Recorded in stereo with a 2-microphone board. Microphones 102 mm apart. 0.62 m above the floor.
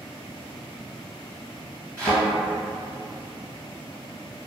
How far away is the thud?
About 1.6 m.